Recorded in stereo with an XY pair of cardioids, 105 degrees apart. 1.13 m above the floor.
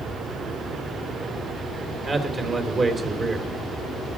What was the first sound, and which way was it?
A man speaking, 35° right.